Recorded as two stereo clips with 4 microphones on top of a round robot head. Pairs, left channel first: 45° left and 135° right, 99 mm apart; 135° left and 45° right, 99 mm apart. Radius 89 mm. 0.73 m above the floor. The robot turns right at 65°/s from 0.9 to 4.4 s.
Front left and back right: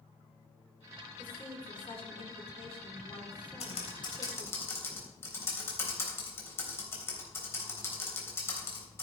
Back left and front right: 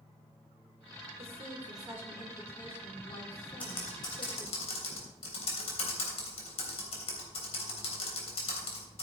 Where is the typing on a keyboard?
60° left, 3.5 m; by 9.0 s 110° left, 3.5 m.